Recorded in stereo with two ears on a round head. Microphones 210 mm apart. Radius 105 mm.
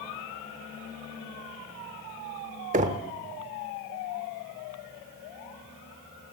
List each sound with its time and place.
2.7 s knocking: 35° right (ahead or behind), 0.8 m